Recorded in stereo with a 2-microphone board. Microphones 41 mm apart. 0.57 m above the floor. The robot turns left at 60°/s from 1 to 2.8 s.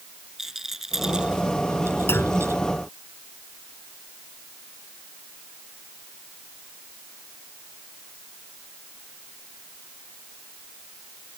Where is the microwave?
No microwave in this recording.